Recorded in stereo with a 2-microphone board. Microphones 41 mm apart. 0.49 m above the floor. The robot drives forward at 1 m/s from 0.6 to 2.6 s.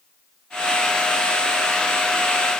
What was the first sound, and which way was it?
Only background noise.